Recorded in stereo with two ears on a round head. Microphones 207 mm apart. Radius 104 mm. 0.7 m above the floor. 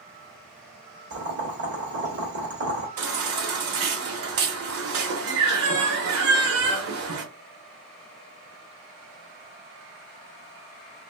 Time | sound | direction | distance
1.1 | boiling | 50° right (ahead or behind) | 1.3 m
3.0 | a baby crying | 70° right (ahead or behind) | 0.8 m